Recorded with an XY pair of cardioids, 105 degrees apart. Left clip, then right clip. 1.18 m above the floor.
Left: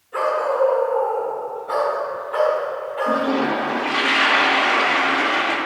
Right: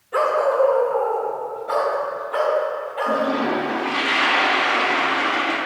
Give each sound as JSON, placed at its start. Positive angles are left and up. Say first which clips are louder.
{"t": 0.1, "sound": "a dog barking", "louder": "right 2 dB", "azimuth_deg": -55, "distance_m": 2.0}
{"t": 3.1, "sound": "a toilet flushing", "louder": "left 1 dB", "azimuth_deg": 20, "distance_m": 1.4}